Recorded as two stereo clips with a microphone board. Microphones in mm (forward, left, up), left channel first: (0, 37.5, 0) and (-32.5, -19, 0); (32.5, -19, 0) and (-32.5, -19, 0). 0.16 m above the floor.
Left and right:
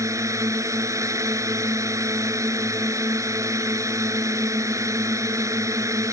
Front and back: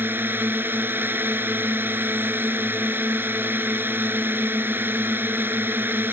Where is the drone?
130° right.